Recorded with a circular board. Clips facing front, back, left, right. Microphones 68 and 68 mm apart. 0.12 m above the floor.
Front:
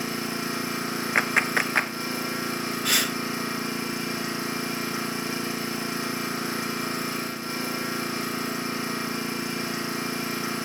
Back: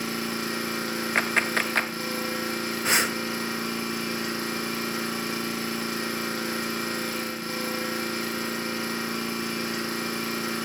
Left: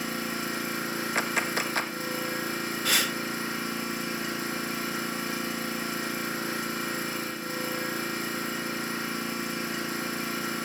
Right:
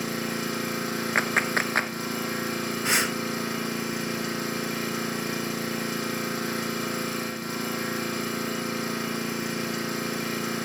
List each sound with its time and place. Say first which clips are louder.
0.0 s an engine running: even, right 2 dB; 70° right, 5.5 m
1.1 s a clap: front 2 dB, right 4 dB; 75° right, 1.1 m
2.9 s breathing: back 3 dB, right 2 dB; 140° right, 0.5 m